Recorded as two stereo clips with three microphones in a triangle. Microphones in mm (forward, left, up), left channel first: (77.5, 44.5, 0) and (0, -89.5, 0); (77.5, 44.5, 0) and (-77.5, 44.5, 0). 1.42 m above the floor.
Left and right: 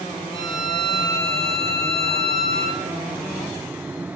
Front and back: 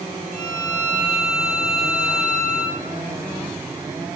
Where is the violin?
175° left, 2 m.